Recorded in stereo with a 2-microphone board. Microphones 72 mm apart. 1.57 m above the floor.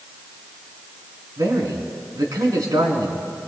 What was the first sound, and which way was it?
A man speaking, 70° right (ahead or behind).